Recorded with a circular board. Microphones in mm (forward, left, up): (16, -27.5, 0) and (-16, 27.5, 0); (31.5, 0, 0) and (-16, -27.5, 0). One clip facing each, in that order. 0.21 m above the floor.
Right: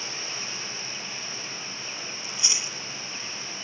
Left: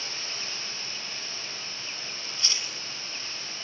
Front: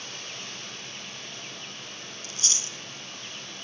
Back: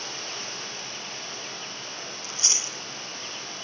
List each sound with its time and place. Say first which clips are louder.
0.0 s running water: right 2 dB, back 4 dB; 135° right, 7.5 m
2.2 s chewing: even, back 1 dB; 135° right, 1.5 m